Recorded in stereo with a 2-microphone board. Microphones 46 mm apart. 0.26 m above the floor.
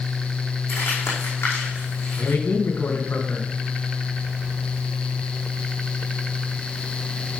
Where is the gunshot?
I don't hear a gunshot.